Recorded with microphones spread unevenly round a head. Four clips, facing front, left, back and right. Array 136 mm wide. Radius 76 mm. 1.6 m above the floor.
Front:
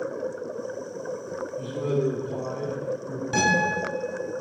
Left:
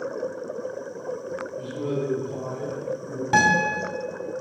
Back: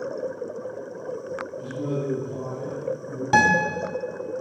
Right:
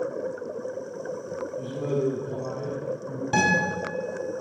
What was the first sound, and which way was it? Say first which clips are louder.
A man speaking: right 1 dB, front 4 dB; 35° left.